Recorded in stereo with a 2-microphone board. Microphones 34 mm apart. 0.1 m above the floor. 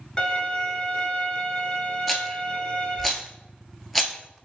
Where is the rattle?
5° left (ahead or behind), 0.6 m.